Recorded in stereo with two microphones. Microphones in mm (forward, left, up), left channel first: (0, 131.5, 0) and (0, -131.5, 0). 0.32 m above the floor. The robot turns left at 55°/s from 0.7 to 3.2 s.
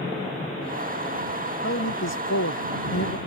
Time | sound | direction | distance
1.6 | a man speaking | 130° left | ?